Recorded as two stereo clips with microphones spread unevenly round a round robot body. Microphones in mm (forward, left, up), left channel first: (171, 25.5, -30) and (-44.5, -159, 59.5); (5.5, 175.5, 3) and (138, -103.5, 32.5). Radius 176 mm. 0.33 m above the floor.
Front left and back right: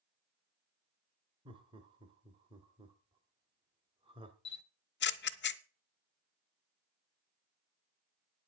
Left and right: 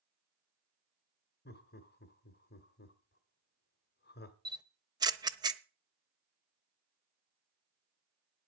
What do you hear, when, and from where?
1.4 s laughter: 130° left, 1.1 m
4.5 s a camera shutter: 15° left, 0.9 m